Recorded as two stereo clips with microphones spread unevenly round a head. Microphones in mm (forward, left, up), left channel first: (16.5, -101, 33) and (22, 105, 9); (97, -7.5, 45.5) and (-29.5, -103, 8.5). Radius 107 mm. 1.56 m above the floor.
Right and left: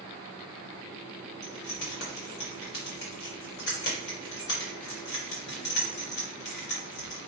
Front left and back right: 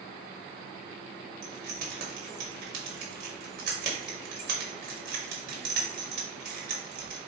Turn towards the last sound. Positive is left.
turn(degrees=-125)